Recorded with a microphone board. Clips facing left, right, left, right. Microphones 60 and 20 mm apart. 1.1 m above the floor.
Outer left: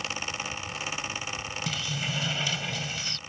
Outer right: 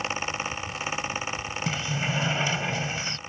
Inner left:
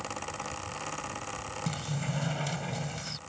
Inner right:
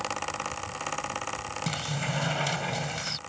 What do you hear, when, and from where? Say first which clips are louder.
1.7 s a sliding door: outer right 5 dB, inner right 4 dB; 30° right (ahead or behind)